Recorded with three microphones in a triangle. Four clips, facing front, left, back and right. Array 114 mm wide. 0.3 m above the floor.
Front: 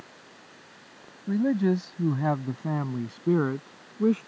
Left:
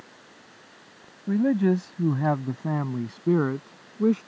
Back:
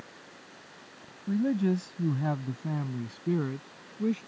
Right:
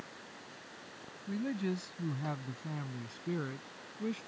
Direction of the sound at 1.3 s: 70° left.